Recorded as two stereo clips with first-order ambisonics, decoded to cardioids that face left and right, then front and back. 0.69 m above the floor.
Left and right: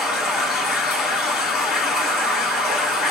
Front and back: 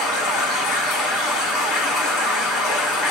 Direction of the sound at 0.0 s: 30° left.